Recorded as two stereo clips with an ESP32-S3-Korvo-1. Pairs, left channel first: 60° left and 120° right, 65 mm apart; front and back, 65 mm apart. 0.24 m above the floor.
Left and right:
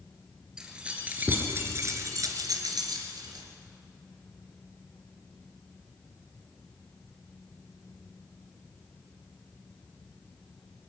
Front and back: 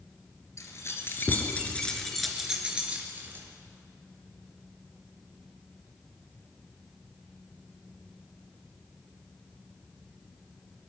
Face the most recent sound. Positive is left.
turn(degrees=-120)